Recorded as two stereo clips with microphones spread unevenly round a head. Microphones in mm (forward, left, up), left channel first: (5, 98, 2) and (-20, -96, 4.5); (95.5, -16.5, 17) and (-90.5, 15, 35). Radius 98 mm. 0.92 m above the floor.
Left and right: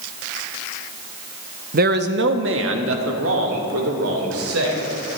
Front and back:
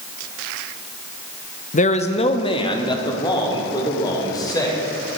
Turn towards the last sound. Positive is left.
turn(degrees=-80)